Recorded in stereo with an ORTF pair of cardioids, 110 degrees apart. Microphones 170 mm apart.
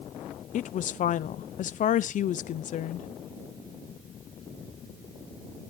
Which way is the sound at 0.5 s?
50° left.